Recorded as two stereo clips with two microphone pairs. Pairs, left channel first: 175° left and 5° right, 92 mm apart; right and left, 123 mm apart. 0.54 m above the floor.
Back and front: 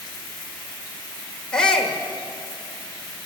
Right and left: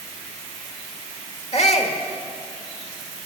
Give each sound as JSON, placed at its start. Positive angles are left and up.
{"t": 1.5, "sound": "a shout", "azimuth_deg": -100, "distance_m": 1.5}